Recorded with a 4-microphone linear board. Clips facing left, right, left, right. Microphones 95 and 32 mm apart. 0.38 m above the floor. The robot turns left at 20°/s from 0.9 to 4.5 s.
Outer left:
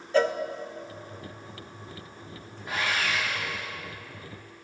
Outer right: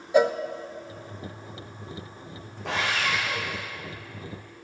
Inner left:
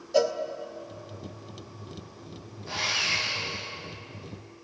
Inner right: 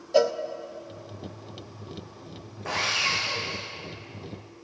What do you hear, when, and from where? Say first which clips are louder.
0.1 s a cowbell: outer right 3 dB, inner right 2 dB; 15° right (ahead or behind), 0.5 m
2.6 s sawing: outer right 2 dB, inner right 2 dB; 85° right, 4 m; by 3.6 s 65° right (ahead or behind), 4 m